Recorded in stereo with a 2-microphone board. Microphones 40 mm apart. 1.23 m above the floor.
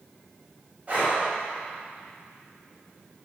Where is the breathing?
30° right (ahead or behind), 6.5 m.